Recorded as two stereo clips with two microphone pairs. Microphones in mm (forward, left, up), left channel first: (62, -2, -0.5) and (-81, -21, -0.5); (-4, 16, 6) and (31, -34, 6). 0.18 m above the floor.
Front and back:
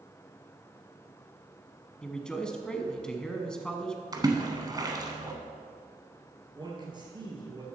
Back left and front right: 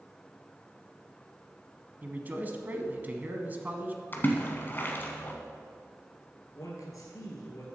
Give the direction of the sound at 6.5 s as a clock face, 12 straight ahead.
8 o'clock.